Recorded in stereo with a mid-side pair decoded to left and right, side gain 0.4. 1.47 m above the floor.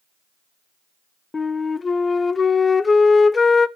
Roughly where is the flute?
Ahead left.